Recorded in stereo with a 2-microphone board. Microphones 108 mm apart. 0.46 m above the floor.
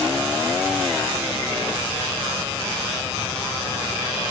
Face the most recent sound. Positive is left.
No sound to turn to.